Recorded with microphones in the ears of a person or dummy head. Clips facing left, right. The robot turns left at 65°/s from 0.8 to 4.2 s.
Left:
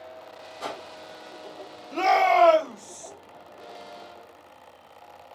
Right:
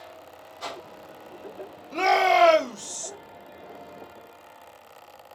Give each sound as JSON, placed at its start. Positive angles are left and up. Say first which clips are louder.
{"t": 0.6, "sound": "a whoosh", "louder": "left 2 dB", "side_deg": 40, "distance_m": 2.5}
{"t": 1.9, "sound": "a shout", "louder": "even", "azimuth_deg": 10, "distance_m": 0.7}